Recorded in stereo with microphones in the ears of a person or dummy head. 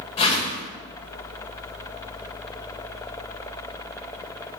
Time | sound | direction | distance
0.2 | a whoosh | 35° left (ahead or behind) | 1.2 m